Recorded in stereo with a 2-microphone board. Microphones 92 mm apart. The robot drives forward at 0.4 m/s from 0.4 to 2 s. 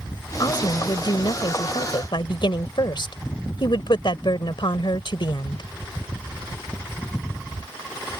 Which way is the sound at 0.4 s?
50° left (ahead or behind).